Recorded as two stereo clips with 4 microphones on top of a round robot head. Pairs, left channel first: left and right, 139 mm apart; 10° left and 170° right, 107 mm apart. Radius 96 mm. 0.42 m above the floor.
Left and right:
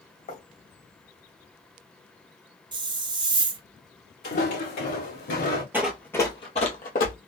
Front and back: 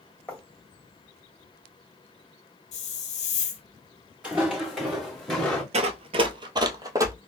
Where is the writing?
85° left, 2 m.